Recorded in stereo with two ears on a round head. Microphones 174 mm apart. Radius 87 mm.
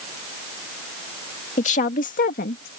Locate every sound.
1.6 s a woman speaking: 40° left (ahead or behind); by 2.7 s 50° left (ahead or behind)